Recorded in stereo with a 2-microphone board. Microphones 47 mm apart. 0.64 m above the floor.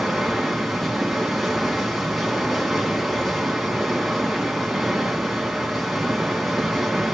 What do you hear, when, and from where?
0.0 s running water: 5° right (ahead or behind), 2.5 m